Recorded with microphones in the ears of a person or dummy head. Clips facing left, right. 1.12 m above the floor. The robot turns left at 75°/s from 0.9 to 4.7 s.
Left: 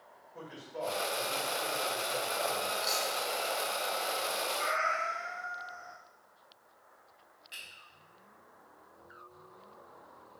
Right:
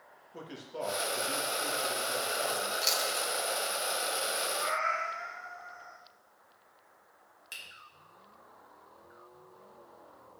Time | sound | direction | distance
0.3 | a man speaking | 60° right | 1.8 m
2.8 | chewing | 40° right (ahead or behind) | 0.9 m
4.5 | a cat meowing | 45° left (ahead or behind) | 2.5 m
7.5 | a finger snap | 80° right | 3 m